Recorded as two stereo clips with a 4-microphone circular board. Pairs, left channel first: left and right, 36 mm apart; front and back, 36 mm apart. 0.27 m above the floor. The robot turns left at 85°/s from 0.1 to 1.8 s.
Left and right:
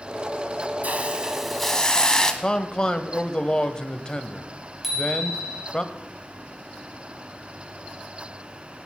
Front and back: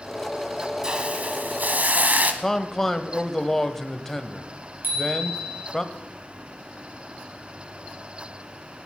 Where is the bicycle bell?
175° right, 4 m.